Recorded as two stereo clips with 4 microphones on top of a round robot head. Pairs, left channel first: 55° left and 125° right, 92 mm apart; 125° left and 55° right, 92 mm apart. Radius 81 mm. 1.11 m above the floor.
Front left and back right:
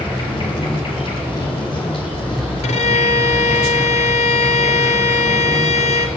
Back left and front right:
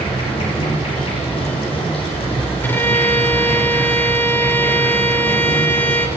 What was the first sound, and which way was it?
An insect, 95° left.